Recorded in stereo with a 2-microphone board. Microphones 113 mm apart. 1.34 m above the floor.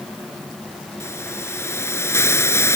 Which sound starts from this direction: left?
A hiss, at 1.0 s.